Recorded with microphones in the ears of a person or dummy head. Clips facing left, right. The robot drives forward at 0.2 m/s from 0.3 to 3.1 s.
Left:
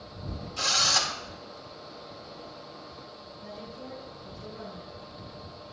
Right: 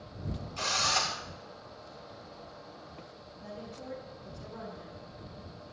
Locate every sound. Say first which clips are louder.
0.6 s a drill: left 2 dB; 10° left (ahead or behind), 1.7 m; by 1.2 s 5° left (ahead or behind), 1.8 m
3.4 s a woman speaking: left 1 dB; 75° right (ahead or behind), 5.5 m